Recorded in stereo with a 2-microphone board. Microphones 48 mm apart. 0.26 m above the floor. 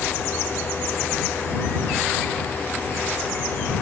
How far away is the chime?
I don't hear a chime.